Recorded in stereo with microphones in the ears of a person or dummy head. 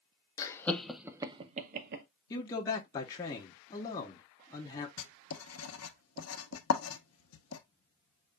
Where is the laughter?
25° left (ahead or behind), 0.9 m; by 2.0 s 60° right (ahead or behind), 0.8 m.